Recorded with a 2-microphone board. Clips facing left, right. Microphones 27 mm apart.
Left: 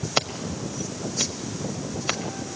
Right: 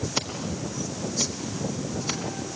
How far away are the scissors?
About 1.4 m.